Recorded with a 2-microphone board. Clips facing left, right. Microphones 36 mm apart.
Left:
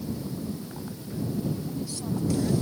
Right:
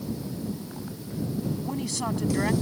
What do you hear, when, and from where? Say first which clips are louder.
1.6 s a woman speaking: right 3 dB; 85° right